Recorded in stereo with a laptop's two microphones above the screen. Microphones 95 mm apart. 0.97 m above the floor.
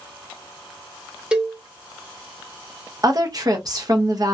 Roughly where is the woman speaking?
Right.